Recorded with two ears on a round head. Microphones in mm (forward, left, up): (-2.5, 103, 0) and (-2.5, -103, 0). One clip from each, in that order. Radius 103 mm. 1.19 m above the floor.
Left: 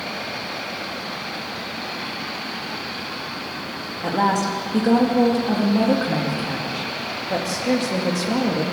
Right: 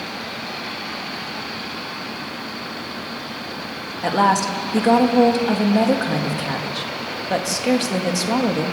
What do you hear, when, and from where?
4.0 s a woman speaking: 30° right (ahead or behind), 2 m